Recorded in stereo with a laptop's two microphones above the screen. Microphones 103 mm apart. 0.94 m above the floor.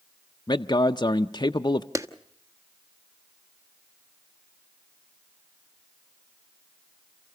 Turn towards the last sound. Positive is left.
turn(degrees=-30)  # may be behind; listen again after turning